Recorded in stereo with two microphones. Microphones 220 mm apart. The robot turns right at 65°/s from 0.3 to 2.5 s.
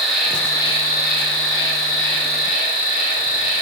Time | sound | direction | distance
0.0 | an insect | straight ahead | 0.9 m